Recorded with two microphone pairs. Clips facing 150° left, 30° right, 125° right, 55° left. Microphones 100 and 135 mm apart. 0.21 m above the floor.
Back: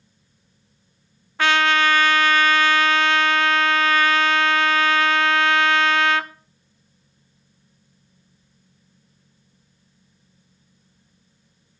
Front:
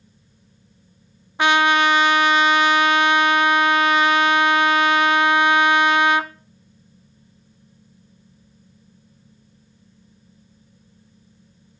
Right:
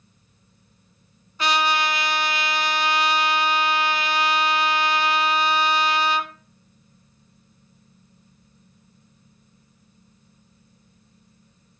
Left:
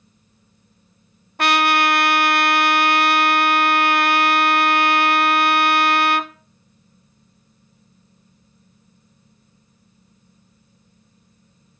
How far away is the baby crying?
No baby crying in this recording.